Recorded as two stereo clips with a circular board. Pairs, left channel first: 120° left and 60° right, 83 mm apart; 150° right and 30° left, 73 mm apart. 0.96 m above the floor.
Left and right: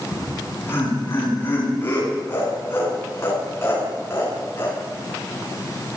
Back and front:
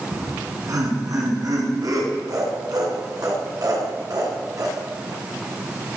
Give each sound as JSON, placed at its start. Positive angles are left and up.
{"t": 0.1, "sound": "laughter", "azimuth_deg": 60, "distance_m": 9.5}